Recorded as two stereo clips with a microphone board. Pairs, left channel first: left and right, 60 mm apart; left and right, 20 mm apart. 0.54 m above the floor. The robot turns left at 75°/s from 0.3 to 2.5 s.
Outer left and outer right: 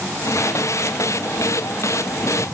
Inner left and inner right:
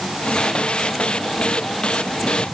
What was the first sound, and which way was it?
Only background noise.